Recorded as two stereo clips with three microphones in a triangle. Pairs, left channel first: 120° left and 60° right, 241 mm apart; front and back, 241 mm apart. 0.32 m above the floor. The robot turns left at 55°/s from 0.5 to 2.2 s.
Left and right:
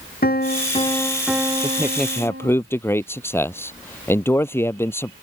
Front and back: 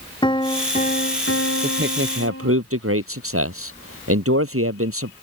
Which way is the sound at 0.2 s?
70° left.